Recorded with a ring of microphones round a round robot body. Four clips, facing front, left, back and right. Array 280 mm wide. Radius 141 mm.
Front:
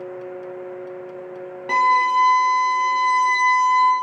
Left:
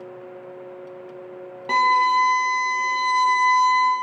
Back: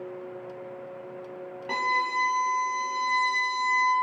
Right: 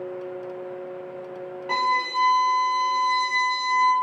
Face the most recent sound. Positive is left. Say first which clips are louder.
# left 6 dB, front 11 dB
turn(degrees=50)